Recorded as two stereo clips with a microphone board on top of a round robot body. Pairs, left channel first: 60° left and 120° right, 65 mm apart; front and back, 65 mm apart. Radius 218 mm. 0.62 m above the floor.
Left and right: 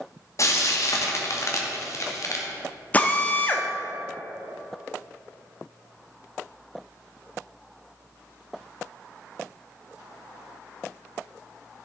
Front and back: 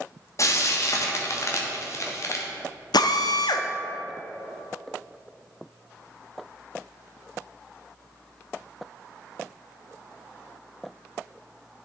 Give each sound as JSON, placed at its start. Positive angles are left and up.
{"t": 0.4, "sound": "frying", "azimuth_deg": 30, "distance_m": 1.7}
{"t": 2.9, "sound": "a drill", "azimuth_deg": -5, "distance_m": 0.7}